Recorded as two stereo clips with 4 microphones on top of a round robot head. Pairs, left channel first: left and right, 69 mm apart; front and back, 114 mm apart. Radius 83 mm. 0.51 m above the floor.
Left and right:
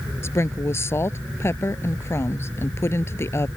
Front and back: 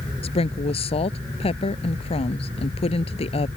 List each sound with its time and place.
0.2 s a woman speaking: 35° left